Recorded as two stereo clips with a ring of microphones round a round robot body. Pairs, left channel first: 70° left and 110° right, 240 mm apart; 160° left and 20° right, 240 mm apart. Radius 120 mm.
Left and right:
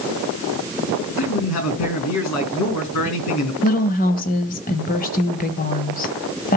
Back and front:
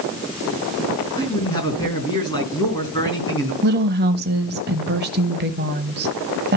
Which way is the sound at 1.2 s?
85° left.